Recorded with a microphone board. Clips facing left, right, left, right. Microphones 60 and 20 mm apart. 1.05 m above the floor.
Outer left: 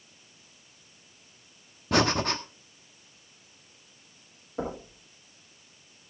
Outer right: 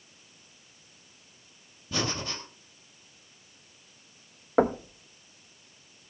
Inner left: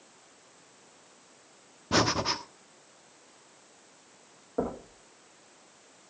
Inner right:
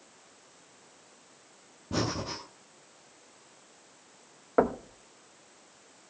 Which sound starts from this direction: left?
Breathing, at 1.9 s.